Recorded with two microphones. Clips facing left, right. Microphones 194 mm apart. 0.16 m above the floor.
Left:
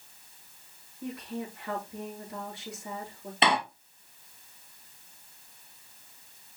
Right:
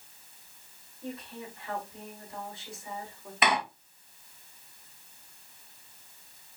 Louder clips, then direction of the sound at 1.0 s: Left 4 dB; 75° left (ahead or behind).